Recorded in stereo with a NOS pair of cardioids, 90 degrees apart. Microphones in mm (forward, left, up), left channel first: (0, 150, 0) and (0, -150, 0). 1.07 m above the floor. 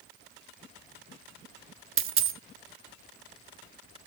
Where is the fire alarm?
I don't hear a fire alarm.